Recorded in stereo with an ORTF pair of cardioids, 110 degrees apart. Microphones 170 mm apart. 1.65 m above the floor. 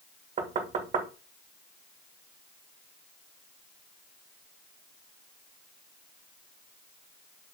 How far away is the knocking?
About 2 m.